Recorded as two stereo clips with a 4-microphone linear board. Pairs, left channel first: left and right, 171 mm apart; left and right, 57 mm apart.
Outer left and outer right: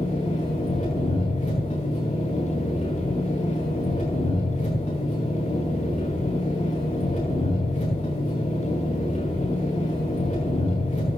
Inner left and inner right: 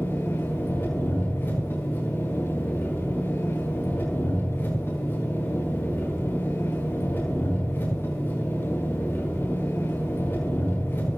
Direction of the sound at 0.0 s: 40° left (ahead or behind).